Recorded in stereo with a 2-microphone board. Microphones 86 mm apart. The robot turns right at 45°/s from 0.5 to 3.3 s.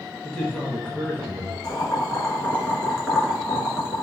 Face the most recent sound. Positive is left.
turn(degrees=-5)  # may be behind; listen again after turning